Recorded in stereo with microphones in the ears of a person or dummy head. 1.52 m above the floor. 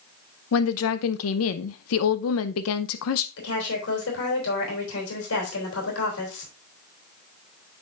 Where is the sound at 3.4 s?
80° left, 3 m.